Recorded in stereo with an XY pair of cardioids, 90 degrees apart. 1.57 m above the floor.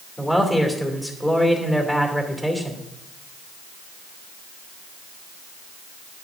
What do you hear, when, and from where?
0.2 s a man speaking: 15° left, 2.5 m